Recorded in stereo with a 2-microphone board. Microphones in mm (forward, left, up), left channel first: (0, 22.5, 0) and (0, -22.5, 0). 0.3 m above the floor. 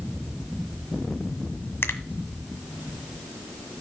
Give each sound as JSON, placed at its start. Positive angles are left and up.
{"t": 1.8, "sound": "a finger snap", "side_deg": 60, "distance_m": 1.6}